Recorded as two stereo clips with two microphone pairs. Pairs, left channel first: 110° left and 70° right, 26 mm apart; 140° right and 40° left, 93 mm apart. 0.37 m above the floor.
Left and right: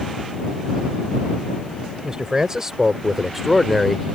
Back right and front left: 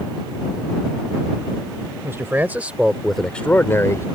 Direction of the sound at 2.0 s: 15° right.